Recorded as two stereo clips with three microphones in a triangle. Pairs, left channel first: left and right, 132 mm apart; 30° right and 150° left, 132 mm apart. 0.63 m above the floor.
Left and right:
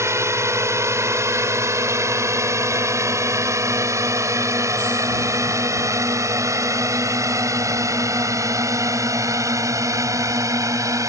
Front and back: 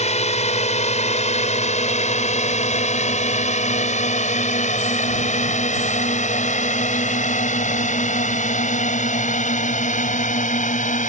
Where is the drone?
25° right.